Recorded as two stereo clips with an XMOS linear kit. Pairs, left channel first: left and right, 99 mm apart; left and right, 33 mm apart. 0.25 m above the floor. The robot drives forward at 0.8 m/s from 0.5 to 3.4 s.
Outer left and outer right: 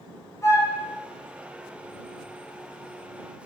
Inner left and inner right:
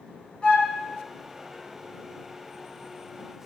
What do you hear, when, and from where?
0.4 s a flute: 30° left (ahead or behind), 2 m; by 0.8 s 35° left (ahead or behind), 2 m